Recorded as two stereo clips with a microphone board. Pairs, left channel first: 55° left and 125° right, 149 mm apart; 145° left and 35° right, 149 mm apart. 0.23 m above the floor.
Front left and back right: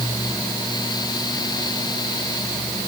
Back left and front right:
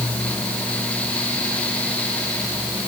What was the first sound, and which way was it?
Only background noise.